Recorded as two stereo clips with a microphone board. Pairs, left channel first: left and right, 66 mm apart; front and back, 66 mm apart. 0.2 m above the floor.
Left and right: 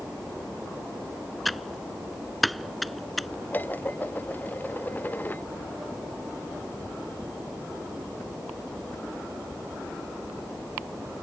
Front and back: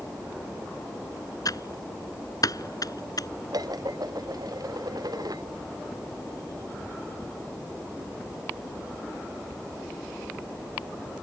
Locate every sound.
1.4 s typing on a keyboard: straight ahead
3.5 s dishes clattering: 155° left